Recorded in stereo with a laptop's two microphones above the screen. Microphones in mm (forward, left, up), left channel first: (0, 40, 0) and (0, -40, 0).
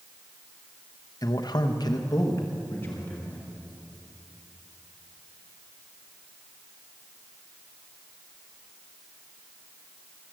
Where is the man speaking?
50° left (ahead or behind), 1.0 m; by 3.5 s 20° left (ahead or behind), 2 m.